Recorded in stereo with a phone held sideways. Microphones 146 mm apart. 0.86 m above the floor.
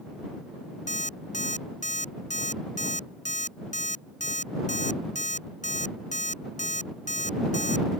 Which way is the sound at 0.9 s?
55° left (ahead or behind).